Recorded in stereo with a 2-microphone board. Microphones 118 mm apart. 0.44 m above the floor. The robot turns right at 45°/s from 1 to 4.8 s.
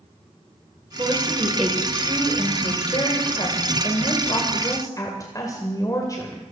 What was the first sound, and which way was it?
A woman speaking, 30° right.